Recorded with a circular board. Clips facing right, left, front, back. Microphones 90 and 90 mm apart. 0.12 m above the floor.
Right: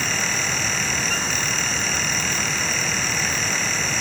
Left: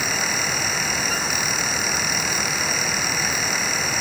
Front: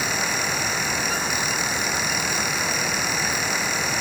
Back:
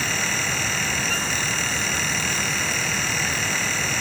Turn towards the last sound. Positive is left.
No sound to turn to.